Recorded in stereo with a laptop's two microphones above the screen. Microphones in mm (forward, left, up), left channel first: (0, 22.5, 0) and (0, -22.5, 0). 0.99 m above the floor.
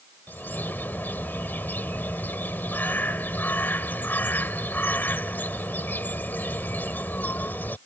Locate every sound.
0.3 s a bird: 50° left (ahead or behind)